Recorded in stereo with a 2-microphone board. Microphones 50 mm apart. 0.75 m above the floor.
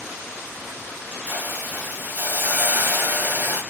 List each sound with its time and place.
1.3 s a hiss: 35° right (ahead or behind), 0.8 m